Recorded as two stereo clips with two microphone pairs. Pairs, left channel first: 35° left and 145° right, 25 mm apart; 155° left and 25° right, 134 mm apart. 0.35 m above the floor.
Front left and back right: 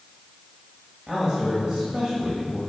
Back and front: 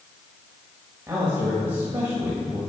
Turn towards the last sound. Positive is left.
turn(degrees=-90)